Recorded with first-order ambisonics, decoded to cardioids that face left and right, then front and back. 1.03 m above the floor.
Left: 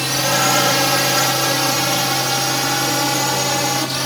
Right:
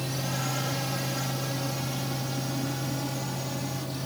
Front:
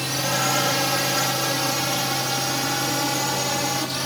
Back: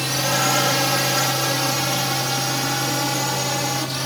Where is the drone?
105° left; by 4.1 s 95° left.